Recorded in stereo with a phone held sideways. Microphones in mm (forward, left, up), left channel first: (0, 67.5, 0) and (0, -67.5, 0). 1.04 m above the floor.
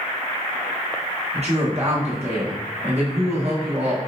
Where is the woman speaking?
55° right (ahead or behind), 1.2 m.